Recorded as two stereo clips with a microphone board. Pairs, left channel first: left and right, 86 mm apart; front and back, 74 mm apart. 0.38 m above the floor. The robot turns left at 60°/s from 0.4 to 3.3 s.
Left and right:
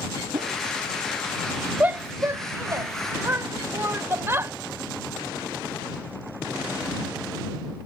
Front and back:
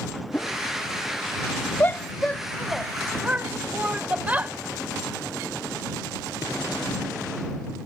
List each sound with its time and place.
0.3 s a whoosh: 70° right; by 0.6 s 80° right
1.8 s a shout: 35° right; by 4.5 s 125° right